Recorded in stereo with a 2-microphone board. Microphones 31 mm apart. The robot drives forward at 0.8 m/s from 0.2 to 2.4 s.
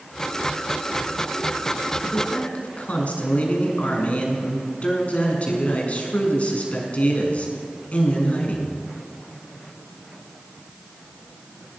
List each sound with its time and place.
2.0 s a man speaking: 45° left (ahead or behind), 6.5 m